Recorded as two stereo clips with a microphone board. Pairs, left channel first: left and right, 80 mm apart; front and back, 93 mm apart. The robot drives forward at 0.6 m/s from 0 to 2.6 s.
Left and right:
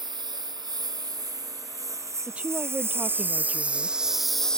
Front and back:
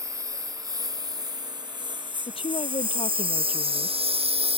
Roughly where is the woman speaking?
Ahead.